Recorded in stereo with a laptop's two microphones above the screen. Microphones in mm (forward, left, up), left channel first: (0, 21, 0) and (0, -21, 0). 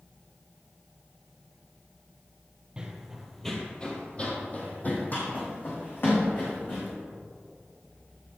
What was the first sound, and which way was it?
Running footsteps, 20° right (ahead or behind).